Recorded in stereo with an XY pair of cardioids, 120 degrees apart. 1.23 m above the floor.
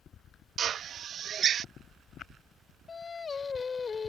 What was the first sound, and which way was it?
A drill, 50° right.